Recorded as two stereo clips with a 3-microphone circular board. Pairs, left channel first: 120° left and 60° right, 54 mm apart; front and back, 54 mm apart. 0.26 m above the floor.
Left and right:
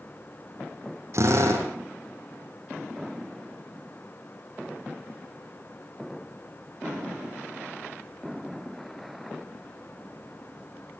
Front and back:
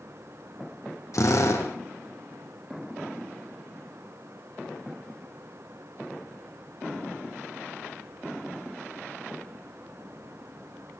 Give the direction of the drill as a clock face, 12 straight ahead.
1 o'clock.